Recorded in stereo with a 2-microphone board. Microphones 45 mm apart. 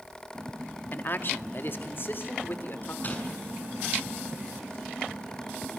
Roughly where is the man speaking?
Left.